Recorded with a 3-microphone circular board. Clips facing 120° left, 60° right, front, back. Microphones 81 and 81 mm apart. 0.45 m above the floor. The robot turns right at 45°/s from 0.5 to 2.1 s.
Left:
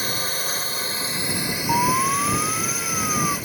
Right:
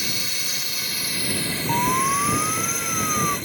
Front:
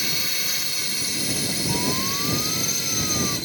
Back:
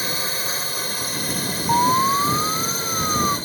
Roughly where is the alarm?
Behind.